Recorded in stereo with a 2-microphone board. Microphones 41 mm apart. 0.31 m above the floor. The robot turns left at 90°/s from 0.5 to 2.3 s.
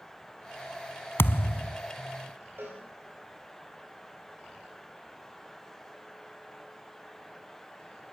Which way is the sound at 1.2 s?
115° left.